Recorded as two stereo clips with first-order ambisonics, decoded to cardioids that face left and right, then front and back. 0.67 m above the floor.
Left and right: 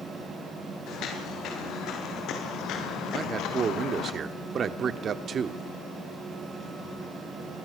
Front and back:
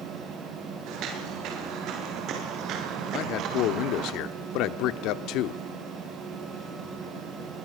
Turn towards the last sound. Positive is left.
turn(degrees=-25)